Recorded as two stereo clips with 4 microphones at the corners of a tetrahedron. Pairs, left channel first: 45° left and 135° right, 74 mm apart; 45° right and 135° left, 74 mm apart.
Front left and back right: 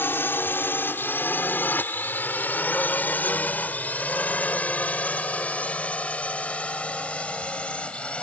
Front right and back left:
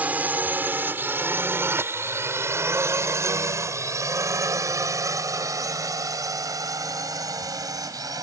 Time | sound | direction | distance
0.0 | a drone | 85° left | ?